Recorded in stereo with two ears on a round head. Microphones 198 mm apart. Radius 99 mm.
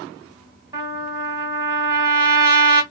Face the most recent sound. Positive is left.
turn(degrees=-20)  # may be behind; listen again after turning